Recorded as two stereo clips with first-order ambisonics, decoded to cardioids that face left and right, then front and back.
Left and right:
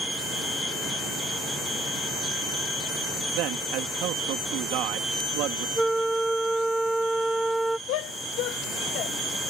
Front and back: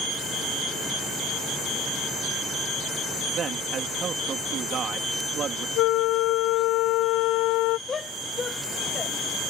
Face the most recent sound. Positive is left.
turn(degrees=70)